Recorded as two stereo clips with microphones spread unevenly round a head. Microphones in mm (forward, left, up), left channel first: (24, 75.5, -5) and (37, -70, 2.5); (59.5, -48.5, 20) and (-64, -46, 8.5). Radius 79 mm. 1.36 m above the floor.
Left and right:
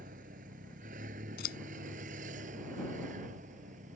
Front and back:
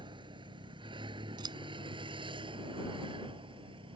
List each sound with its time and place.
0.0 s a vehicle: 130° right; by 4.0 s 135° right
1.4 s scissors: 115° left